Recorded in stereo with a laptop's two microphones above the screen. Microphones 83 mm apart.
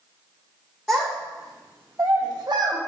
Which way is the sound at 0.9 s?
Centre (ahead or behind).